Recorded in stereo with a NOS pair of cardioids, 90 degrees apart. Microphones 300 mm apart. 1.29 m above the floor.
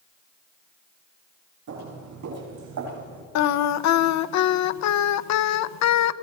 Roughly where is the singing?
Ahead left.